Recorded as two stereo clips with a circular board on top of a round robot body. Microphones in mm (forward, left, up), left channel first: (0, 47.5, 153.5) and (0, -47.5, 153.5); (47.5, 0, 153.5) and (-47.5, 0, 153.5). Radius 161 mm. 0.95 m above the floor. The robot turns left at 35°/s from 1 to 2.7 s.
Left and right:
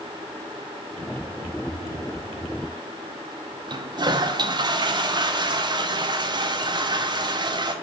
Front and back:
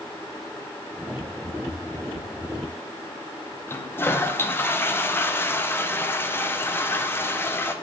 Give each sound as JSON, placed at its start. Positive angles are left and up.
{"t": 3.7, "sound": "a toilet flushing", "azimuth_deg": -60, "distance_m": 1.1}